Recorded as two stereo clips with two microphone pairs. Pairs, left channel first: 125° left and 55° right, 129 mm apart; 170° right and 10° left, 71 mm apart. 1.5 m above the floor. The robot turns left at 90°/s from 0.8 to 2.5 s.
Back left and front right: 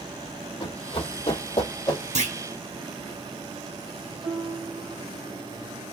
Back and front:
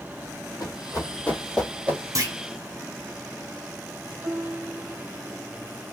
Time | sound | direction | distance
0.6 | running footsteps | 170° left | 3.5 m
2.1 | a clunk | 25° right | 0.9 m
4.2 | a piano | 15° left | 3 m